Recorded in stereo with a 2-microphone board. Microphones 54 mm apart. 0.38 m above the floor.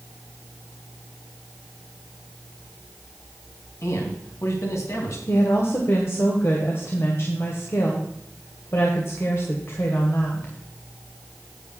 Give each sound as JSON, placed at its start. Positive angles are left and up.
{"t": 3.8, "sound": "a man speaking", "side_deg": 60, "distance_m": 3.5}
{"t": 5.3, "sound": "a woman speaking", "side_deg": 50, "distance_m": 2.0}